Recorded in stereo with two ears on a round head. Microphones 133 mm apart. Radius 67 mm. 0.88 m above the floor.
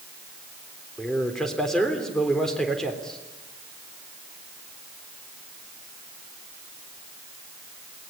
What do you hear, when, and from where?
1.0 s a man speaking: 5° left (ahead or behind), 3.5 m